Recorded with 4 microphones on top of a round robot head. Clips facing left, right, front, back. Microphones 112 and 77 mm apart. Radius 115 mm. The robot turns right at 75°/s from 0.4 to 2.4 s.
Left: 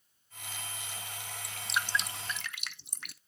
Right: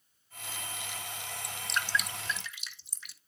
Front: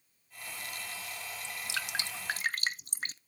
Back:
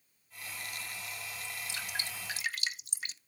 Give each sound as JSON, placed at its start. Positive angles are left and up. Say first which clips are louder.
{"t": 1.4, "sound": "dripping", "louder": "left 1 dB, front 6 dB", "azimuth_deg": -20, "distance_m": 0.5}